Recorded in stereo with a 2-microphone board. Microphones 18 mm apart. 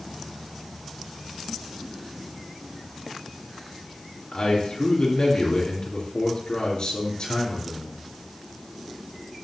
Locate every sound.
4.3 s a man speaking: 60° left (ahead or behind), 3 m